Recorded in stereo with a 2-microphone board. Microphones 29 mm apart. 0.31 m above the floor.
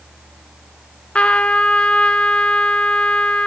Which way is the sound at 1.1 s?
45° left (ahead or behind).